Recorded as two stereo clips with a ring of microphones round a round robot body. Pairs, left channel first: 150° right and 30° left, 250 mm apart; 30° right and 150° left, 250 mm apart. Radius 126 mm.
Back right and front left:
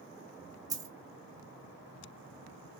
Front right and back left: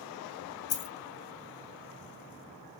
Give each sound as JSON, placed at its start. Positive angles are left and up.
{"t": 0.7, "sound": "a dropped coin", "azimuth_deg": -45, "distance_m": 0.5}